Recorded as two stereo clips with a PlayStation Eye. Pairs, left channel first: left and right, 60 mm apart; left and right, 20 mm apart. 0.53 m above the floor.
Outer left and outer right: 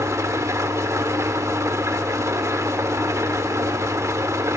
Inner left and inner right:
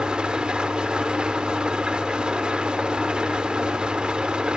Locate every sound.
0.0 s an engine running: 60° right (ahead or behind), 0.9 m